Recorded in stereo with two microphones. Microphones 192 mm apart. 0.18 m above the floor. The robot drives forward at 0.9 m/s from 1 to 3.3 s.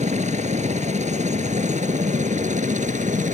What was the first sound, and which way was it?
A helicopter, 40° right (ahead or behind).